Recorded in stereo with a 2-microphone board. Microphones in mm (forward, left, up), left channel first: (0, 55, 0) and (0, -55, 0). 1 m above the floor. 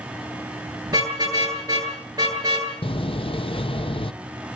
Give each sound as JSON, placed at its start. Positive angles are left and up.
{"t": 0.9, "sound": "a car horn", "side_deg": -35, "distance_m": 9.0}
{"t": 2.8, "sound": "a door slam", "side_deg": 55, "distance_m": 0.8}